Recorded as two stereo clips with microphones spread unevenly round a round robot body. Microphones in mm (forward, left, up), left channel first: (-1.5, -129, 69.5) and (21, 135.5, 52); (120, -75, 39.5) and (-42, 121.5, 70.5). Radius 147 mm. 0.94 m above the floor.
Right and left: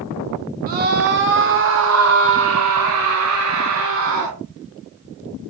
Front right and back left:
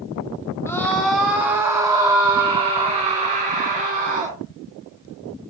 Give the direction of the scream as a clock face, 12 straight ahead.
11 o'clock.